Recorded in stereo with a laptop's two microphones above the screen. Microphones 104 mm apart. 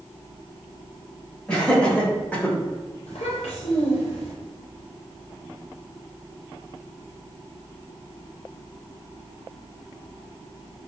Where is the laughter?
10° left (ahead or behind), 1.9 m; by 2.6 s 15° left (ahead or behind), 1.0 m.